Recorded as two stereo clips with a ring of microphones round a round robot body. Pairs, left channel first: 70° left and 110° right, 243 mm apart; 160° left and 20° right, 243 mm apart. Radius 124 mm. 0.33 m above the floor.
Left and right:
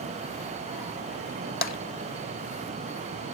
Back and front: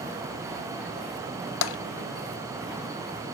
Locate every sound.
1.6 s tapping: 125° left, 0.8 m